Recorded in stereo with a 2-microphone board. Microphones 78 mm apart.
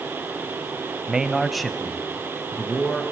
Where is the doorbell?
I don't hear a doorbell.